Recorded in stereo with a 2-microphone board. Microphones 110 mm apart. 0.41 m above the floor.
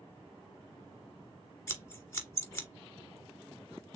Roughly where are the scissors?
Left.